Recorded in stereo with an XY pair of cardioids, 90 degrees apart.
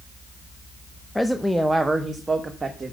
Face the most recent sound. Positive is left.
turn(degrees=-30)